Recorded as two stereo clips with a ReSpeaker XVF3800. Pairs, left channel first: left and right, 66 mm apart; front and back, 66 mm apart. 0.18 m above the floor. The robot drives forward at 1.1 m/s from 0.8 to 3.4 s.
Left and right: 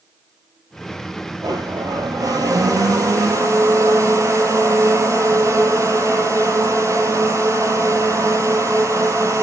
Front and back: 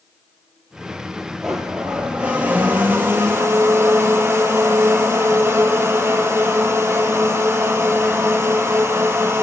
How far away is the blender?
About 3.5 m.